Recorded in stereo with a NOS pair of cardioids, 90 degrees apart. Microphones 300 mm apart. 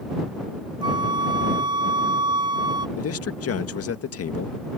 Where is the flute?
15° right.